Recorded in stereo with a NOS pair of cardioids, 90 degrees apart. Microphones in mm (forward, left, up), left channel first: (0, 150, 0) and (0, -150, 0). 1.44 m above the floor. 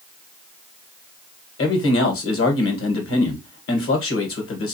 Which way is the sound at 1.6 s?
45° left.